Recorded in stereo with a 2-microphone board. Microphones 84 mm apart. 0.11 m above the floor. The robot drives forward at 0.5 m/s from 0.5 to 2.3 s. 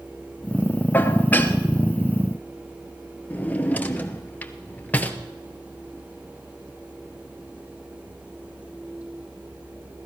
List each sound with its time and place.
0.9 s dishes clattering: 20° left (ahead or behind), 0.9 m
3.3 s a drawer: 20° left (ahead or behind), 0.9 m